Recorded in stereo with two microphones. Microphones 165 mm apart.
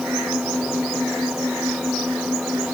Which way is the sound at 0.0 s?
5° right (ahead or behind).